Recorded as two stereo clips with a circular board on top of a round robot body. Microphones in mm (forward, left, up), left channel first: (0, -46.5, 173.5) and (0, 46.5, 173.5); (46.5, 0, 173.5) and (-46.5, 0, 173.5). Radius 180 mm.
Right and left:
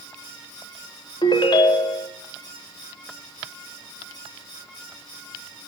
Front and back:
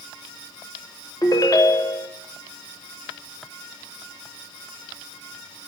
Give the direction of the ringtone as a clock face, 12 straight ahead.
2 o'clock.